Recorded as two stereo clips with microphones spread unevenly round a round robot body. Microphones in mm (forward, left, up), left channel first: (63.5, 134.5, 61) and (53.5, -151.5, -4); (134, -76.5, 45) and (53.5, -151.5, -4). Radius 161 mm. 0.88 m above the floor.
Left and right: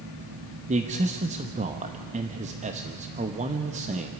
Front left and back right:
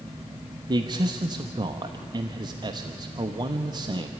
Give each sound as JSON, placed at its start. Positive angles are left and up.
{"t": 0.7, "sound": "a man speaking", "azimuth_deg": -145, "distance_m": 1.0}